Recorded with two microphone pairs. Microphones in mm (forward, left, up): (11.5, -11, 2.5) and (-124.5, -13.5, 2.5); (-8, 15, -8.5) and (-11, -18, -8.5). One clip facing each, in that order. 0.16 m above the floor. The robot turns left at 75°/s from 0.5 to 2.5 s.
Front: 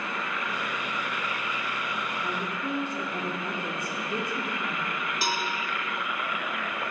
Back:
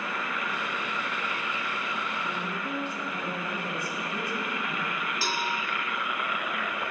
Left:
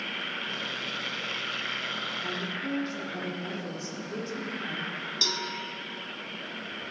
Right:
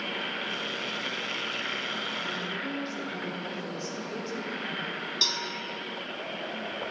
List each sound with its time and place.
2.2 s a woman speaking: 10° left, 4 m; by 4.9 s 10° right, 4 m
5.2 s a cowbell: 45° right, 1.2 m